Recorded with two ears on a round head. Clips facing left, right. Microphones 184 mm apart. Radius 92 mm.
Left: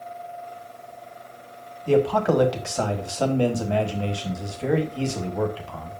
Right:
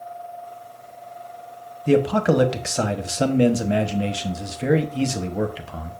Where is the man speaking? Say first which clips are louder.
Right 2 dB; 20° right (ahead or behind), 1.0 m.